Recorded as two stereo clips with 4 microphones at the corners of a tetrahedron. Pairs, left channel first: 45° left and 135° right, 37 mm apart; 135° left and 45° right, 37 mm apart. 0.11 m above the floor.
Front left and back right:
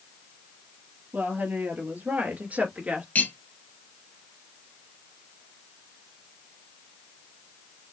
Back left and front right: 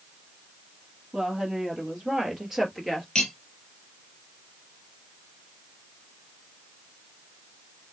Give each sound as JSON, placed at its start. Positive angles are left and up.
{"t": 1.1, "sound": "a woman speaking", "azimuth_deg": -120, "distance_m": 3.0}
{"t": 3.1, "sound": "cutlery clinking", "azimuth_deg": 65, "distance_m": 1.4}